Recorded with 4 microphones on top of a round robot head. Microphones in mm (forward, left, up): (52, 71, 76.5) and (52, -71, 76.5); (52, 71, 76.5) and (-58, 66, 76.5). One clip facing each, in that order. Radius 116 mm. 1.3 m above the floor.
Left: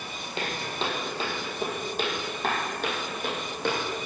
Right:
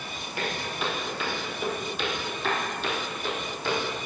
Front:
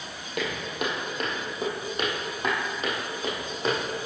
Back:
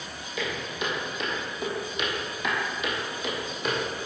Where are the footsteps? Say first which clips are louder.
Even, front 2 dB; 25° left, 2.5 m; by 4.1 s 60° left, 3.5 m.